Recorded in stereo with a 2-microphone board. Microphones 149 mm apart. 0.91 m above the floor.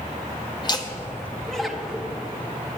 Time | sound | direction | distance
0.6 | laughter | 30° left (ahead or behind) | 1.1 m